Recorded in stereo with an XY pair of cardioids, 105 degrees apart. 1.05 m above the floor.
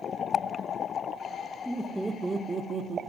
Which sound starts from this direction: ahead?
Laughter, at 1.6 s.